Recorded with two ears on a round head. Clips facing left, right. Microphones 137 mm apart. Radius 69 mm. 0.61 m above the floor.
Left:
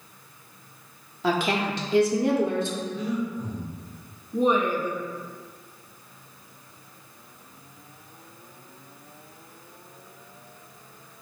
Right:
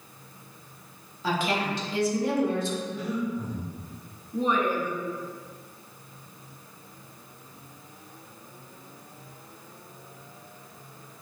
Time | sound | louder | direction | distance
1.2 | a woman speaking | left 3 dB | 50° left (ahead or behind) | 0.9 m
2.9 | breathing | left 1 dB | 5° right (ahead or behind) | 1.4 m
4.3 | a woman speaking | left 3 dB | 15° left (ahead or behind) | 0.5 m